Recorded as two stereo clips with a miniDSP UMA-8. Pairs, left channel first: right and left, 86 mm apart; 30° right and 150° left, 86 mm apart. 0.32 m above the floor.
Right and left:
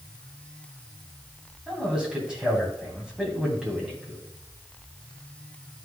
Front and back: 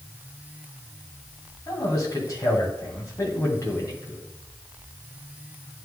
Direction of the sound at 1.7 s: 10° left.